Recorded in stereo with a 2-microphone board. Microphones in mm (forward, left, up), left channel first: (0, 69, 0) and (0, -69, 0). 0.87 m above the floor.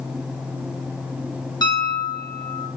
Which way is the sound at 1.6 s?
25° left (ahead or behind).